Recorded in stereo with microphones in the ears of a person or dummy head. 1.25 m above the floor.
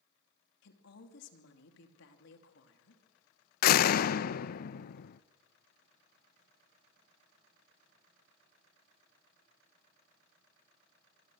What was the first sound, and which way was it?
A woman speaking, 70° left (ahead or behind).